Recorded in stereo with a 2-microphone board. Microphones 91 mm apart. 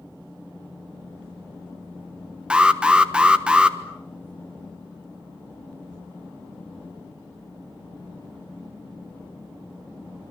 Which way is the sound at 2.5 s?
10° right (ahead or behind).